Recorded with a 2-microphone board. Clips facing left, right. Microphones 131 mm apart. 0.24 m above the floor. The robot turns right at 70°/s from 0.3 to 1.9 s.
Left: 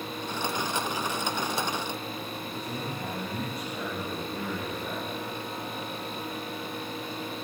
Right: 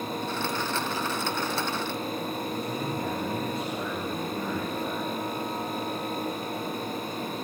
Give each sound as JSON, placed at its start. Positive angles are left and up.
{"t": 2.5, "sound": "a man speaking", "side_deg": -25, "distance_m": 6.0}